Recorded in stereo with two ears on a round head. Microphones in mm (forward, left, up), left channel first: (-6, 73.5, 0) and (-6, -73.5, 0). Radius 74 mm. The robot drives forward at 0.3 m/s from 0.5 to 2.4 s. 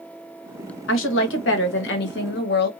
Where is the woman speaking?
85° left, 1.0 m; by 2.7 s 65° left (ahead or behind), 1.2 m.